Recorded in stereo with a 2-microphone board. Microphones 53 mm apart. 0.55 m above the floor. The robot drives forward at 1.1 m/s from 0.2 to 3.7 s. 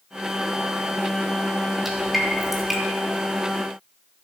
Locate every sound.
1.9 s dripping: 5° right (ahead or behind), 2.5 m